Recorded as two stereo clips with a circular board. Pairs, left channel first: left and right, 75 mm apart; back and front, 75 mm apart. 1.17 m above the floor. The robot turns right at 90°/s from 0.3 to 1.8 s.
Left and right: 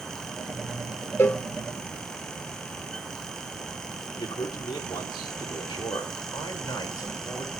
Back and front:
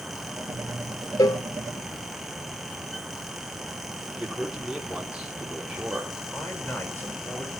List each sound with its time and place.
1.2 s a cowbell: 145° left, 0.5 m; by 1.4 s 170° left, 0.5 m
4.2 s a man speaking: 80° left, 3.5 m
6.3 s a man speaking: 120° left, 4.5 m